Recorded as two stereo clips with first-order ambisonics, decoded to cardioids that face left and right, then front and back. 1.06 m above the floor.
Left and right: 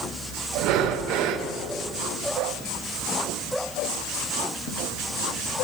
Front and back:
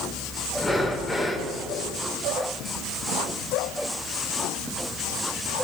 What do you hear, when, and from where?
0.6 s breathing: 80° right, 0.5 m